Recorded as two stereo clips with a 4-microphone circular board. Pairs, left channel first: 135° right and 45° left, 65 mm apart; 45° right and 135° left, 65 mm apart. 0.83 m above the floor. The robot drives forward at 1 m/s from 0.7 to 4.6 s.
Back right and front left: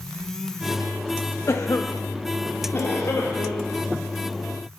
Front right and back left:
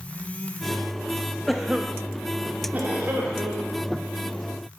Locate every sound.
1.5 s a cough: 130° right, 0.5 m; by 3.9 s 175° right, 2.5 m